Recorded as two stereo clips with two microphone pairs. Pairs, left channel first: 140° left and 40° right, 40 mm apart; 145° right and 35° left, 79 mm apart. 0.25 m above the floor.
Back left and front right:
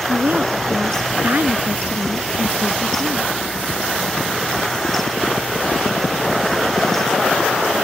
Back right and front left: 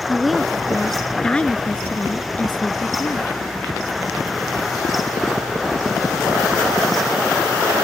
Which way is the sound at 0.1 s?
50° right.